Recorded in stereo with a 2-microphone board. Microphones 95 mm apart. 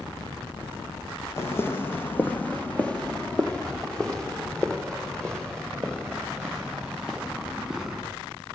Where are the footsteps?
25° left (ahead or behind), 1.5 m; by 8.0 s centre (ahead or behind), 5.5 m.